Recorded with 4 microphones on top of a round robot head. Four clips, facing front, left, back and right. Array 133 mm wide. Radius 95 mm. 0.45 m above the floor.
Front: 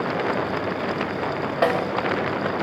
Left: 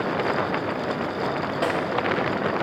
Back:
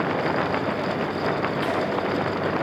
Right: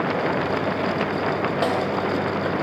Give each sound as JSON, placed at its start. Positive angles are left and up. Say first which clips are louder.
{"t": 1.6, "sound": "a snare drum", "louder": "right 1 dB, front 4 dB", "azimuth_deg": -15, "distance_m": 2.5}